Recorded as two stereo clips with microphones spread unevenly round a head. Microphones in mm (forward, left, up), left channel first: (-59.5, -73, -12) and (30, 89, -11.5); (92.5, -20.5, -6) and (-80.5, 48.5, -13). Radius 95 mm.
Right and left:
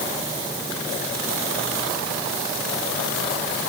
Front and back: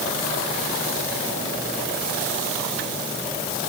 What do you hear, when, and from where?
Only background noise.